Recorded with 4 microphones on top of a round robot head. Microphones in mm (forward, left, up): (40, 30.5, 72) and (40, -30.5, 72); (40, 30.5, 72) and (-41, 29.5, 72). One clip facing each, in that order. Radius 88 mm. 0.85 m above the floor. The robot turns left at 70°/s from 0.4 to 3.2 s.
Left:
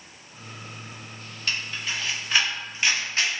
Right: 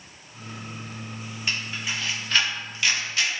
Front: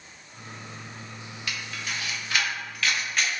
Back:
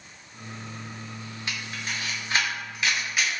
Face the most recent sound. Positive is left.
turn(degrees=100)